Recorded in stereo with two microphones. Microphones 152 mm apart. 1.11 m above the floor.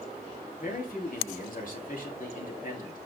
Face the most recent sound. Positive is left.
turn(degrees=65)  # may be behind; listen again after turning